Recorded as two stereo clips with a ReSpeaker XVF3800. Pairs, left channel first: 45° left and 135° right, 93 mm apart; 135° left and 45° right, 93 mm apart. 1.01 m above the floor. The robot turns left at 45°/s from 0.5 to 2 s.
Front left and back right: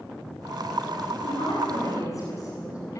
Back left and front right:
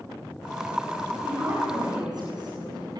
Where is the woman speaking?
30° left, 9 m; by 3.0 s 5° right, 9 m.